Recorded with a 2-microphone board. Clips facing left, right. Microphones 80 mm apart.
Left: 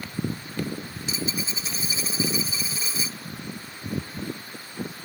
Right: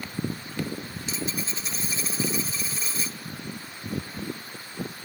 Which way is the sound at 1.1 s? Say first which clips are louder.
Left 2 dB; 5° left (ahead or behind).